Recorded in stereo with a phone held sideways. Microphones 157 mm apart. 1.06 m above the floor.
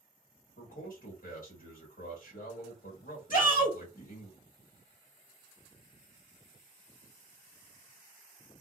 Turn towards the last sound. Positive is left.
turn(degrees=60)  # may be behind; listen again after turning